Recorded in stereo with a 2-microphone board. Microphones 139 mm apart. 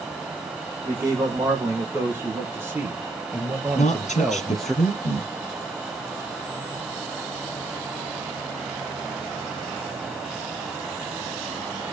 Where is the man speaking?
25° right (ahead or behind), 4 m; by 4.8 s 5° left (ahead or behind), 2 m.